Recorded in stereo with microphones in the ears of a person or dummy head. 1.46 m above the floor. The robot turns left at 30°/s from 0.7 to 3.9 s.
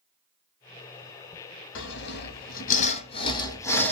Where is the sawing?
75° left (ahead or behind), 0.6 m; by 3.9 s 10° left (ahead or behind), 0.6 m.